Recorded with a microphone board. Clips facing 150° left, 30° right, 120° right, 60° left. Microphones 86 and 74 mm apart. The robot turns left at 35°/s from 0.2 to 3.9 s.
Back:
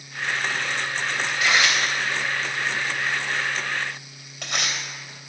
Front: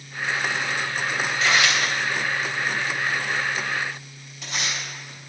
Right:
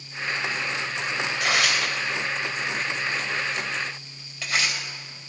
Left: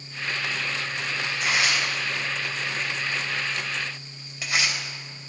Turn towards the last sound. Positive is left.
turn(degrees=140)